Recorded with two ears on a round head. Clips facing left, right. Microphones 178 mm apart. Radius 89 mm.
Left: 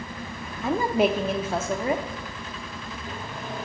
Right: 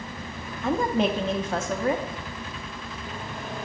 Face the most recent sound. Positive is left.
turn(degrees=5)  # may be behind; listen again after turning